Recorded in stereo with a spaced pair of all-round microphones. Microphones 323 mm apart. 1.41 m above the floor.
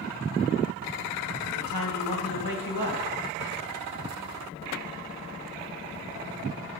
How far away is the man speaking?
About 1.5 m.